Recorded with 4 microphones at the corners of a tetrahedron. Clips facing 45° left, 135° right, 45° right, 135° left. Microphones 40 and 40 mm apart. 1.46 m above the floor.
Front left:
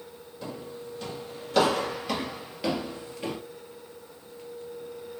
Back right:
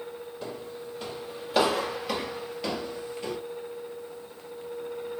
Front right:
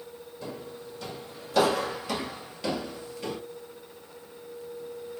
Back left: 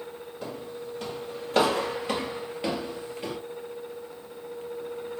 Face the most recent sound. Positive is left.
turn(degrees=70)